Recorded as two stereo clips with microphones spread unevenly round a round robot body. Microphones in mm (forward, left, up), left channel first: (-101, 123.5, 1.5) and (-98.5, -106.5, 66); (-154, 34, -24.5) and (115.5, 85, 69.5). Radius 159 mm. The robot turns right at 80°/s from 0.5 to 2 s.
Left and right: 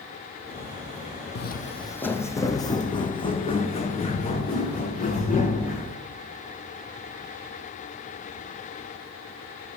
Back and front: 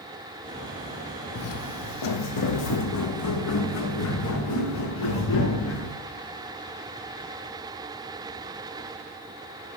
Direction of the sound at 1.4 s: 140° left.